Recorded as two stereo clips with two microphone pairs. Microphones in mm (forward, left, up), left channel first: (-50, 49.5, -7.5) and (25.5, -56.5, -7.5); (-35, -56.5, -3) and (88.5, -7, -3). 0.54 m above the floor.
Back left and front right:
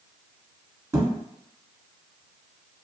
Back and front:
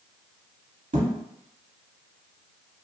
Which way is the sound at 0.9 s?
15° left.